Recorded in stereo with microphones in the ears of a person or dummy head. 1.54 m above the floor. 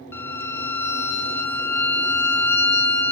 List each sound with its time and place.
0.1 s a violin: 10° left (ahead or behind), 0.7 m